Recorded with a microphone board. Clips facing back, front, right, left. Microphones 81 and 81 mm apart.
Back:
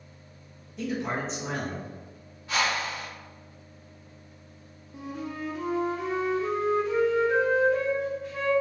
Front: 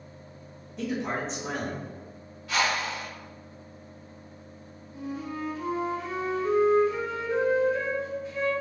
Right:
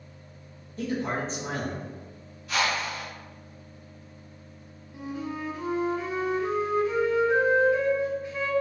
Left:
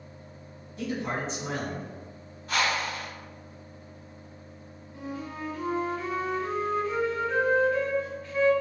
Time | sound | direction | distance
0.8 | a man speaking | 90° right | 1.4 m
2.5 | a whoosh | 120° left | 1.6 m
4.9 | a flute | 165° right | 0.6 m